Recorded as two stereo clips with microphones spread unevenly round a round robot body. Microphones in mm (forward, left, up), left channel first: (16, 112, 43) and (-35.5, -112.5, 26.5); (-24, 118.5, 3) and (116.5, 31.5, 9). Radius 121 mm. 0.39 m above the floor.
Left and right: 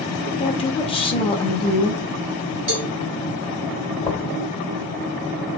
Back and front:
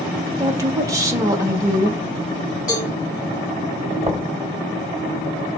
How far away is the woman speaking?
About 1.0 m.